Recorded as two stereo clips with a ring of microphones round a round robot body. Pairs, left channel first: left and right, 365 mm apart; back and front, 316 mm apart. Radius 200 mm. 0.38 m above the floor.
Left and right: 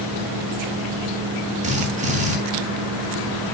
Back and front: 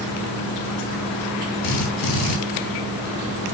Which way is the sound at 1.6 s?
160° right.